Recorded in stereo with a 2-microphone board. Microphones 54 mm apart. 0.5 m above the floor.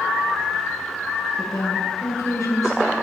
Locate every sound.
1.4 s a woman speaking: 80° left, 8 m